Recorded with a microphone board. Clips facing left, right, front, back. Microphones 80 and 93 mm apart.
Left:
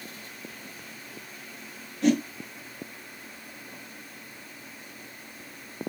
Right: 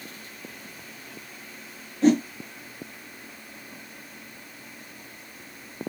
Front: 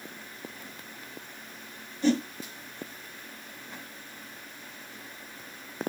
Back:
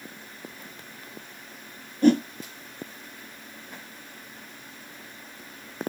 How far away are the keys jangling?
No keys jangling in this recording.